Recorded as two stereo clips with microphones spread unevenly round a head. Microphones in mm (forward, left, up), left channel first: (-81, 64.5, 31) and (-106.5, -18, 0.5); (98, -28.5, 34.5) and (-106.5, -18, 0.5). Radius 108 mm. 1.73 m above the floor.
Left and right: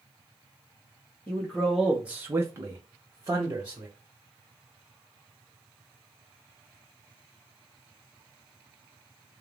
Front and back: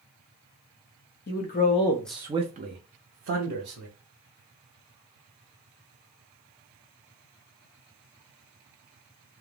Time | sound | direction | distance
1.3 | a man speaking | 10° left | 0.8 m